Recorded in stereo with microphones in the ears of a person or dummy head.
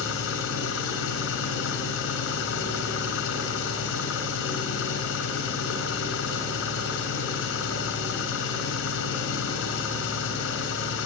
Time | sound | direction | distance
0.0 | an engine running | 80° left | 6.5 m